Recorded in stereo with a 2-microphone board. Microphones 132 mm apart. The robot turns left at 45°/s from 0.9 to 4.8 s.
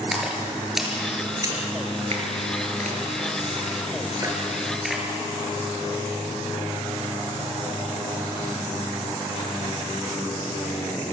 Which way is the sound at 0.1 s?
5° right (ahead or behind).